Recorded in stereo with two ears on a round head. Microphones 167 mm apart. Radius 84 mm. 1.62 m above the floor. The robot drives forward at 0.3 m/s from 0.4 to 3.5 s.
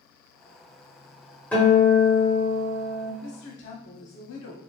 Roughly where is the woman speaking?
Left.